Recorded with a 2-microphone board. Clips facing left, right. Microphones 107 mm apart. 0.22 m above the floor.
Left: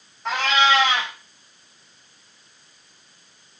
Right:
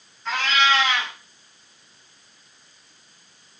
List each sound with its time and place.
0.2 s a cat meowing: 65° left (ahead or behind), 3 m